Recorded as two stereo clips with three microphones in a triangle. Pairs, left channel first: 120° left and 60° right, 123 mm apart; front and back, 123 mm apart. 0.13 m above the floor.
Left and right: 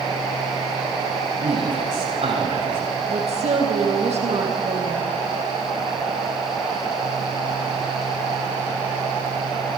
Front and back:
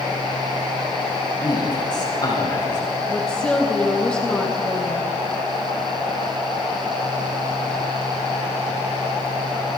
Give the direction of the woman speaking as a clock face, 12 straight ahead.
3 o'clock.